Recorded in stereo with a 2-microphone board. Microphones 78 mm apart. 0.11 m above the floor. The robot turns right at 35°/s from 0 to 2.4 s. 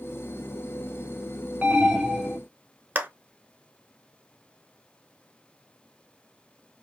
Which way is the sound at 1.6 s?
20° right (ahead or behind).